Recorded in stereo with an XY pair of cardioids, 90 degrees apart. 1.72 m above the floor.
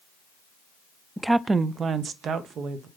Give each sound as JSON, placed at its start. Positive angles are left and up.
{"t": 1.2, "sound": "a woman speaking", "azimuth_deg": -5, "distance_m": 0.5}